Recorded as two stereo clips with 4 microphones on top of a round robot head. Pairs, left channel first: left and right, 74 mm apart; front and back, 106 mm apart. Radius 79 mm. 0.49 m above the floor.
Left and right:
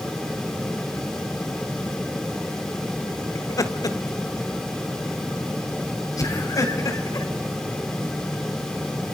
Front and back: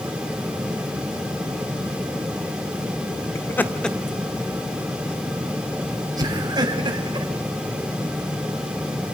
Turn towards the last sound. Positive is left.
turn(degrees=130)